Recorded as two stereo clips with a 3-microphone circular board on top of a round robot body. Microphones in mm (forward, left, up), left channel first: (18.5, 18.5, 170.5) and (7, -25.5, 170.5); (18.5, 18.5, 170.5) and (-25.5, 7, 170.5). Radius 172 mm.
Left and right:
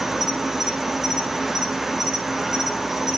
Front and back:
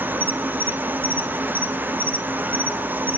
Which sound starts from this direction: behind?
An insect, at 0.0 s.